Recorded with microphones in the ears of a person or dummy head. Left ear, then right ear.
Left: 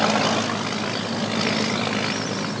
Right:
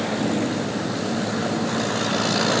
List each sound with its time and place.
Only background noise.